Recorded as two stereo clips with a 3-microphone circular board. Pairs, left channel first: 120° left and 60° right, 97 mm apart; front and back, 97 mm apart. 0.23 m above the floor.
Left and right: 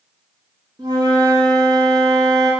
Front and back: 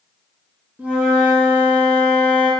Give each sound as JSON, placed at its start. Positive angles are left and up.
{"t": 0.8, "sound": "a flute", "azimuth_deg": -105, "distance_m": 0.6}